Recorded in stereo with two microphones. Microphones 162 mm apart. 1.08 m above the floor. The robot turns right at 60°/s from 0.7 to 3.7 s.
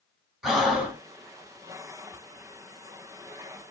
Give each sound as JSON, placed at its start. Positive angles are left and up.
{"t": 0.4, "sound": "breathing", "side_deg": -5, "distance_m": 1.1}